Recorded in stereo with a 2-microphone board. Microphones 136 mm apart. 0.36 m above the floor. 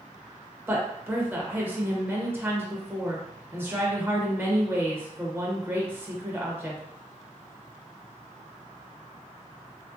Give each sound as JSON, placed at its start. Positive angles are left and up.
{"t": 0.7, "sound": "a woman speaking", "side_deg": -15, "distance_m": 0.8}